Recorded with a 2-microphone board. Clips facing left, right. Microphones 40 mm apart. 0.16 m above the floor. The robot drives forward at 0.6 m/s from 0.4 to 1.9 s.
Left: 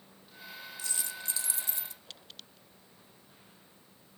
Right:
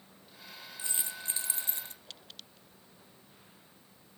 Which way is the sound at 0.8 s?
25° right (ahead or behind).